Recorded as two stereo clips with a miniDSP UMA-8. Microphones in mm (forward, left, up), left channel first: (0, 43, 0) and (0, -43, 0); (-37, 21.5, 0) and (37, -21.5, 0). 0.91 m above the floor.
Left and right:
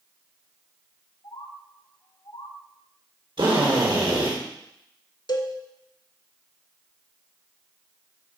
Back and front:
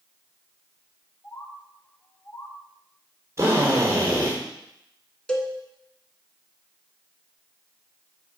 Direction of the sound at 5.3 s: 70° left.